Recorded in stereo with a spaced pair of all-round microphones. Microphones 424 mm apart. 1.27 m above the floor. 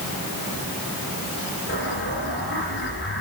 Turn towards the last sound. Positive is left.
turn(degrees=30)  # may be behind; listen again after turning